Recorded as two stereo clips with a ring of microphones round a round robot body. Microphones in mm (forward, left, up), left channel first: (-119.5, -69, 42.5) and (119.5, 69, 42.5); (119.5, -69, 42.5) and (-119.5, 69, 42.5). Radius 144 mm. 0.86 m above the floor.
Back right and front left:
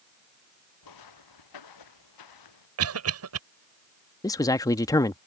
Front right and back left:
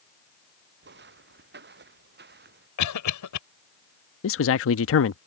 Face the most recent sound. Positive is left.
turn(degrees=-70)